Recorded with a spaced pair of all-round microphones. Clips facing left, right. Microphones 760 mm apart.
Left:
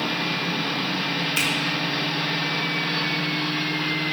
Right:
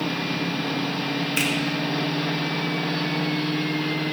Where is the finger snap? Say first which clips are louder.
Right 4 dB; 35° left (ahead or behind), 2.5 m.